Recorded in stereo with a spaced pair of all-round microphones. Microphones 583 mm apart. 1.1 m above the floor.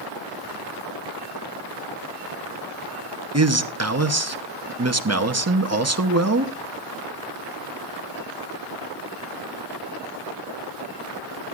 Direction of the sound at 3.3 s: 30° right (ahead or behind).